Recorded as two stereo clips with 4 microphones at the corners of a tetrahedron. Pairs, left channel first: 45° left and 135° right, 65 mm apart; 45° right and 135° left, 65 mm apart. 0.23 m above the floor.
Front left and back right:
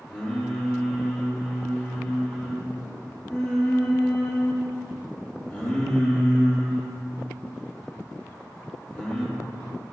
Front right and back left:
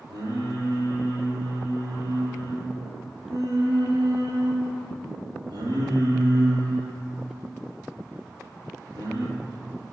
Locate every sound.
0.1 s singing: 140° left, 5 m